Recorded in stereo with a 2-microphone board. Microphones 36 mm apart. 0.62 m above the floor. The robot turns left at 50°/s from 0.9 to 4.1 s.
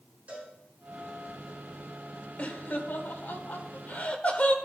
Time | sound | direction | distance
0.3 | a cowbell | 45° right (ahead or behind) | 5 m
2.4 | laughter | 45° left (ahead or behind) | 1.9 m